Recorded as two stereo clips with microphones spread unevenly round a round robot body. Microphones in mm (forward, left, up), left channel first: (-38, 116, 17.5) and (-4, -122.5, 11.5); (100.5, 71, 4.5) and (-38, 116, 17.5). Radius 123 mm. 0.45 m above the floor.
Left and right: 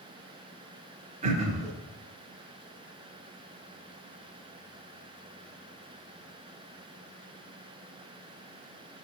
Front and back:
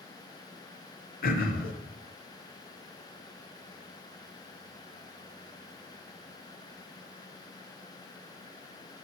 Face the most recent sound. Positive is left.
turn(degrees=-20)